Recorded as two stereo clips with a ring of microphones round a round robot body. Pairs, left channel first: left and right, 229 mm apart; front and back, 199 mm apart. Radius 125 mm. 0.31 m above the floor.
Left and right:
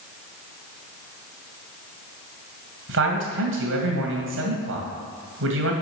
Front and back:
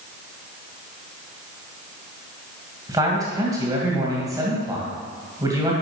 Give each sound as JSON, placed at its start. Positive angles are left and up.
{"t": 2.9, "sound": "a man speaking", "azimuth_deg": -105, "distance_m": 2.5}